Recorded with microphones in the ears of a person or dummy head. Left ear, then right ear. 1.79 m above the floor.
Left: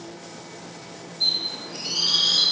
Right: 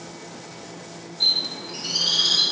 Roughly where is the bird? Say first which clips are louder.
Right 2 dB; right.